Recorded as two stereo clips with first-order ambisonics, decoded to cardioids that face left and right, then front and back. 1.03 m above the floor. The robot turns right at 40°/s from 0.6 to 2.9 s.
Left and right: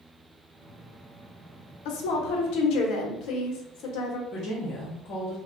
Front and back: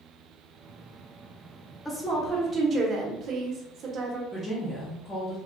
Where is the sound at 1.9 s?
85° left, 0.7 m; by 4.2 s 125° left, 0.7 m.